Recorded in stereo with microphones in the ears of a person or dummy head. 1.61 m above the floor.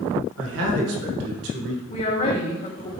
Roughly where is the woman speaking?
Left.